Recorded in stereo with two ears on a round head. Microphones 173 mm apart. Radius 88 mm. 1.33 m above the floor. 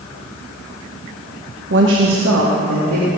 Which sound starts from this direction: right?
A woman speaking, at 1.7 s.